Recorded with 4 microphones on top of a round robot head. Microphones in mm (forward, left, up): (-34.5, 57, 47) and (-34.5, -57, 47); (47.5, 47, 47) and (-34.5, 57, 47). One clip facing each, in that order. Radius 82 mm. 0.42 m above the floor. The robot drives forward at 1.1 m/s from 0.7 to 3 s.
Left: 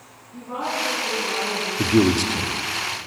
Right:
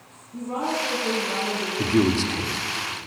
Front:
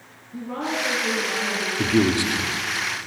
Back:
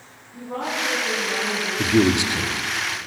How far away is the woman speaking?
About 7.5 m.